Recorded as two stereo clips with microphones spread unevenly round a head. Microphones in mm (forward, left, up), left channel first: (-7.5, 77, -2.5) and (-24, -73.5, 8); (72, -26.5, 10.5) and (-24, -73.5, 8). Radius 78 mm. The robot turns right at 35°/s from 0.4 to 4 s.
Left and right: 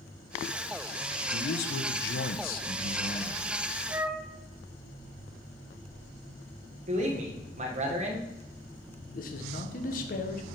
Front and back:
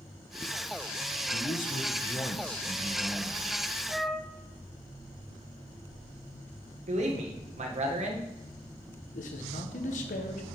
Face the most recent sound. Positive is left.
turn(degrees=45)